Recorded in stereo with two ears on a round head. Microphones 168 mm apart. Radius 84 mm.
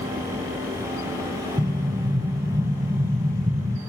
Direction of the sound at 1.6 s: 20° right (ahead or behind).